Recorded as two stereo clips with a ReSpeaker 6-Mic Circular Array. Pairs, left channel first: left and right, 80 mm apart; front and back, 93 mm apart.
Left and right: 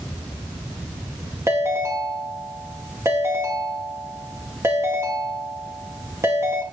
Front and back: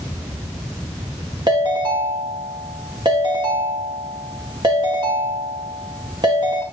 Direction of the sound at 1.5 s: 145° right.